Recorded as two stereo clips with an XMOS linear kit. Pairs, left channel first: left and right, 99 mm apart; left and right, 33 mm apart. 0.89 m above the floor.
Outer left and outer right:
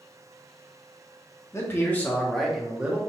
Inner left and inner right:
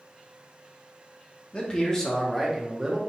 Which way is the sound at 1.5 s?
25° left (ahead or behind).